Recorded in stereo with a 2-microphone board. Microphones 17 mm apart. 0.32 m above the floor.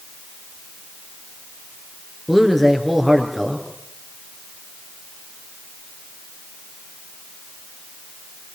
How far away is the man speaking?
About 4.5 m.